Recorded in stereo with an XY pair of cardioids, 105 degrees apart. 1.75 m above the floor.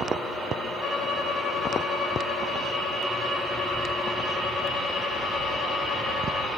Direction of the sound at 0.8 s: 50° left.